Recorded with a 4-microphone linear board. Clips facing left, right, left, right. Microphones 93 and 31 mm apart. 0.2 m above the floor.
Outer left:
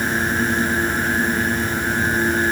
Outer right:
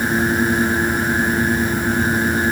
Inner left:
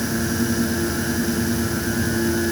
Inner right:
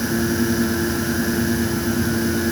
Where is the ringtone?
No ringtone in this recording.